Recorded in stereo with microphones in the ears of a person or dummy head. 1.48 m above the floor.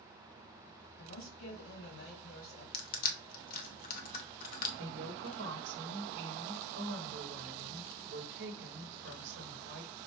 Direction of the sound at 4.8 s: 65° right (ahead or behind).